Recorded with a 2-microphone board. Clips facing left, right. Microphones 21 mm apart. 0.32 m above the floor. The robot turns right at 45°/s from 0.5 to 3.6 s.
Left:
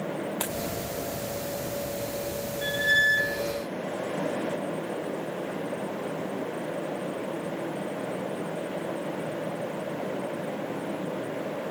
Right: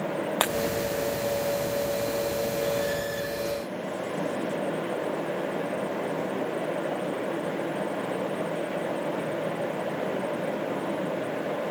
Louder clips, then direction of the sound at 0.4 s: Right 7 dB; 50° right (ahead or behind).